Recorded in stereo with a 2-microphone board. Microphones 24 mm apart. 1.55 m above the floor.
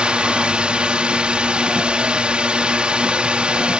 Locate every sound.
0.0 s a drone: 40° right (ahead or behind)